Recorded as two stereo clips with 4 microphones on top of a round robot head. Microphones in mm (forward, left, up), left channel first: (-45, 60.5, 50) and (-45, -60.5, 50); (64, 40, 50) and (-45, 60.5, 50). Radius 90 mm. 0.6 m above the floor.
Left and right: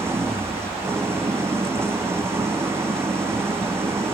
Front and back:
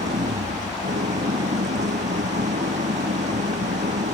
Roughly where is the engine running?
Behind.